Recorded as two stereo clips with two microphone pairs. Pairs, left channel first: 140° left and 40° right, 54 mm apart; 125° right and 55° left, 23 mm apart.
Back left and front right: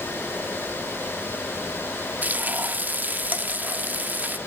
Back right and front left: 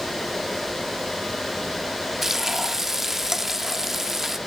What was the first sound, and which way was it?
Frying, 10° right.